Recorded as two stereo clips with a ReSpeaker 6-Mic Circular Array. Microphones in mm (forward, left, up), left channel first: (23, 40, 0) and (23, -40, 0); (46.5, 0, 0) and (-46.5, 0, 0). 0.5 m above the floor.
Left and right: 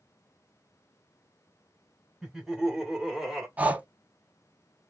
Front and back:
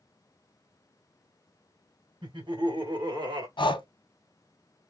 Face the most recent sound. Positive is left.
turn(degrees=-20)